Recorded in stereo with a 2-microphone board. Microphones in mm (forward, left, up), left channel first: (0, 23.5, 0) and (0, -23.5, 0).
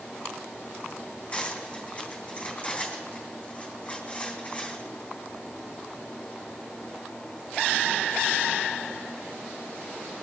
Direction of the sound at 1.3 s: 30° left (ahead or behind).